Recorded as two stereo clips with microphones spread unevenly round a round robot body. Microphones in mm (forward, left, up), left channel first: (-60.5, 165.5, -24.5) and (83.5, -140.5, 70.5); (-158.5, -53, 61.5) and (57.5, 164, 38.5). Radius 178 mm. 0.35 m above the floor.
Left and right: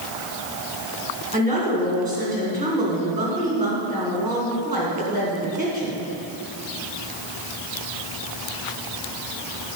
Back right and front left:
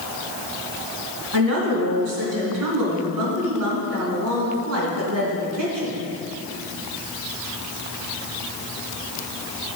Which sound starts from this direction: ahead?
A woman speaking, at 1.3 s.